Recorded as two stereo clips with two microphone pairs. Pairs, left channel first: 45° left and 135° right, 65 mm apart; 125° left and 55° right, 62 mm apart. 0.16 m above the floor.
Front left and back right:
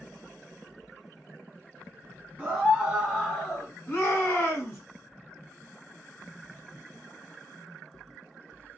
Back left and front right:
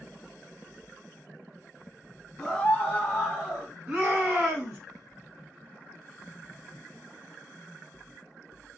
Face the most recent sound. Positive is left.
turn(degrees=15)